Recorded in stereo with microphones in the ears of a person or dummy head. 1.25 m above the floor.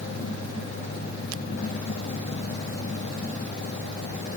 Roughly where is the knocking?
No knocking in this recording.